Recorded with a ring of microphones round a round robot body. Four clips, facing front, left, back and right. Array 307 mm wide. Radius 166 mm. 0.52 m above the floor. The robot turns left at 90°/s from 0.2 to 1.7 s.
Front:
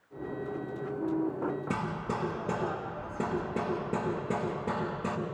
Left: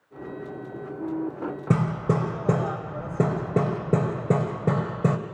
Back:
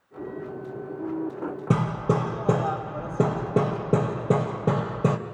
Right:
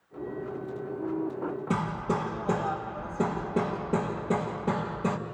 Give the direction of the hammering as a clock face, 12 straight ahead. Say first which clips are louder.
Left 6 dB, back 9 dB; 7 o'clock.